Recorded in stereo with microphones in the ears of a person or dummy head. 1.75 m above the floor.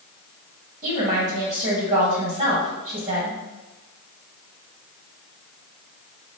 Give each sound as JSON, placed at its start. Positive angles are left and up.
{"t": 0.8, "sound": "a woman speaking", "side_deg": -40, "distance_m": 1.6}